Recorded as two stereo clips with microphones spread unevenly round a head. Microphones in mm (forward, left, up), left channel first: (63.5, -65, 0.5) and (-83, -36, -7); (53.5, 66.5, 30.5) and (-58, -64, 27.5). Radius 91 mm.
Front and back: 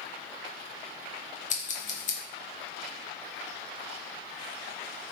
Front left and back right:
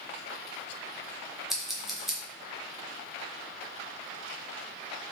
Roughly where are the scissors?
Ahead right.